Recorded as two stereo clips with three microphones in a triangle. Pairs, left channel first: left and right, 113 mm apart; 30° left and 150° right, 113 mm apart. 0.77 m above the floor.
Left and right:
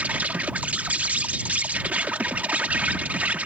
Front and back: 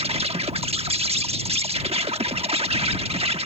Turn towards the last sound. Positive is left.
turn(degrees=-165)